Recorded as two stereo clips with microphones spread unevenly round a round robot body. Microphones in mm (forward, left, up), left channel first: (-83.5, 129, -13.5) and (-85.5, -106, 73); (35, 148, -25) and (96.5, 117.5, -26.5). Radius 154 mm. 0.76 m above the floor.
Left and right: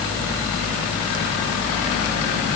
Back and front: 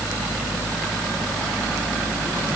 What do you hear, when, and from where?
Only background noise.